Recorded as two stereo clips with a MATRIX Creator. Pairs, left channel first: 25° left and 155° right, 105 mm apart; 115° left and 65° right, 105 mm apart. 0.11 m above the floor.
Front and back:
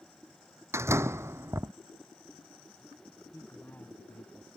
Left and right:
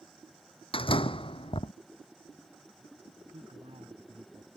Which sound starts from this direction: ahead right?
A man speaking, at 3.3 s.